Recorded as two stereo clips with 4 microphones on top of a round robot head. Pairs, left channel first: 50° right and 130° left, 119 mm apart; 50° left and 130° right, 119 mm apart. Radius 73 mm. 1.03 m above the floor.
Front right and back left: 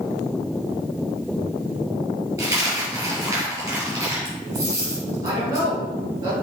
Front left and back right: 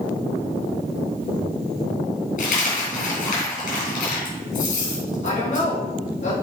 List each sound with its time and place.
2.4 s a dropped coin: 60° left, 3 m
5.2 s a woman speaking: 60° left, 2.5 m